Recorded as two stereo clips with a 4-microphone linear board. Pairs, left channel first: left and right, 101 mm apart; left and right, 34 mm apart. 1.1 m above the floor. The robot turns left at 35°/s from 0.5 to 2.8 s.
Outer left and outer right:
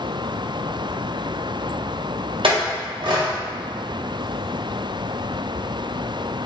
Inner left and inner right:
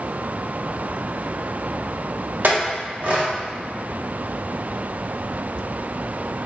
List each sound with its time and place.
2.4 s a clink: 65° right (ahead or behind), 0.7 m; by 3.3 s 55° right (ahead or behind), 0.7 m